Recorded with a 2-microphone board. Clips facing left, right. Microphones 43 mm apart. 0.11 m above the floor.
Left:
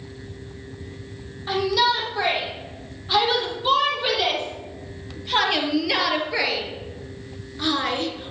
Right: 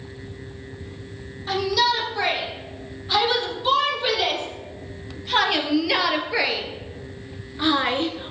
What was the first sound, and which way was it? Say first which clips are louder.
A shout: left 1 dB; 10° left (ahead or behind).